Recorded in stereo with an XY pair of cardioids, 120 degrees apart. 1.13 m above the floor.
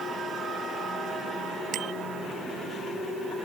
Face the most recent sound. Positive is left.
turn(degrees=-65)